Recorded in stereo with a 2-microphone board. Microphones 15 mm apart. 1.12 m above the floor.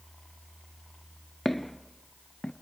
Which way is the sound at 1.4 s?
5° right (ahead or behind).